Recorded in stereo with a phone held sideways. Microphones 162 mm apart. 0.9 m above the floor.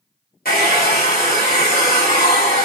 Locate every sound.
0.5 s a hair dryer: 65° left (ahead or behind), 1.5 m